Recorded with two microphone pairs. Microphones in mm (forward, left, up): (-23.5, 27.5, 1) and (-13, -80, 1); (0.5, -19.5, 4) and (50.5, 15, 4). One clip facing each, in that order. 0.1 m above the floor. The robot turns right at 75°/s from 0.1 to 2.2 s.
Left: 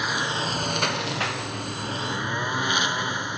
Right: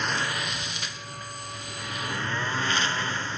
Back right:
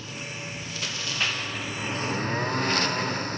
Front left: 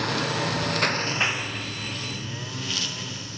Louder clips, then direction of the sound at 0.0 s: Left 2 dB, front left 11 dB; 15° left.